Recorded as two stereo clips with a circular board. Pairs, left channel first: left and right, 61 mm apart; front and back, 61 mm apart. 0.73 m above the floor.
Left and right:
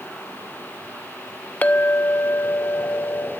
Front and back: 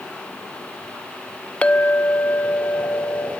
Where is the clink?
50° left, 0.6 m.